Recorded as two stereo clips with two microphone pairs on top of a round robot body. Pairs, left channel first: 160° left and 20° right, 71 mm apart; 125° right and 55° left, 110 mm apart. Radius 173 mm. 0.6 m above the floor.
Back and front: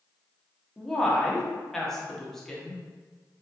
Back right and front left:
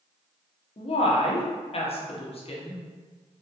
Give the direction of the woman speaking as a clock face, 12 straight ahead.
4 o'clock.